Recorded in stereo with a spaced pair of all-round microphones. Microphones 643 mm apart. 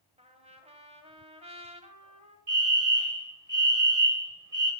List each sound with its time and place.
0.2 s a trumpet: 10° right (ahead or behind), 1.8 m
2.5 s a fire alarm: 60° right (ahead or behind), 2.5 m